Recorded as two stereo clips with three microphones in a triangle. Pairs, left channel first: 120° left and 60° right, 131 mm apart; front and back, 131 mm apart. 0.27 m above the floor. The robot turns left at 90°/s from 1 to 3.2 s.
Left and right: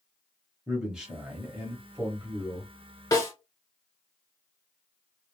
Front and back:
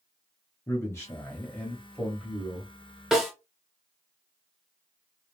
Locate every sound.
0.7 s a man speaking: 10° left, 1.0 m; by 2.7 s 140° right, 1.0 m
3.1 s a snare drum: 90° left, 0.9 m; by 3.3 s 85° left, 0.9 m